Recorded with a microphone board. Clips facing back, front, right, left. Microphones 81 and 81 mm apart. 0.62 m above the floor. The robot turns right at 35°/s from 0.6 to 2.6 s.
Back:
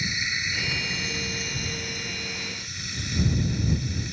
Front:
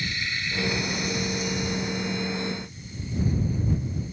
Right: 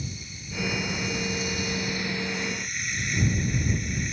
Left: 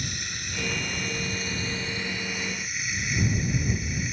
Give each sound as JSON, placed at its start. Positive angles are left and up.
{"t": 0.0, "sound": "running water", "azimuth_deg": 110}